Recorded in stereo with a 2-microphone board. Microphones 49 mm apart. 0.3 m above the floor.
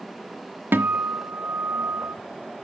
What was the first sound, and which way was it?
A guitar, 50° right (ahead or behind).